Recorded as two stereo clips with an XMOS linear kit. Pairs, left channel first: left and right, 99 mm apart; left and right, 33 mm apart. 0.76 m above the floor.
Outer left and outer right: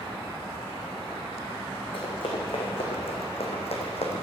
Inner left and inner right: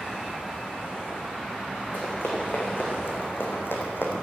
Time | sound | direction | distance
1.9 | running footsteps | 50° left (ahead or behind) | 3.5 m